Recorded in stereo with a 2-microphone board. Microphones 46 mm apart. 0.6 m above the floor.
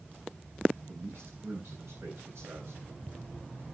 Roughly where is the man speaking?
Right.